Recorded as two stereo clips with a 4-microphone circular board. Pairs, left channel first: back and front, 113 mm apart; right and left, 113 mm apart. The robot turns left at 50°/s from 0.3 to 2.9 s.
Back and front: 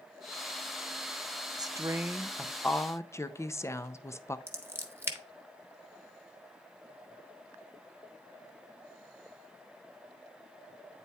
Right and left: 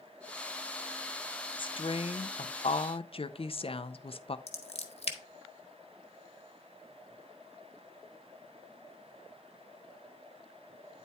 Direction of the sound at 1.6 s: 50° right.